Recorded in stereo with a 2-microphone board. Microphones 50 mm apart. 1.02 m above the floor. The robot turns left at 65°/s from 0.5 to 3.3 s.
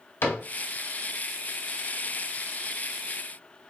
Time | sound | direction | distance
0.2 | a cupboard door | 60° left (ahead or behind) | 1.2 m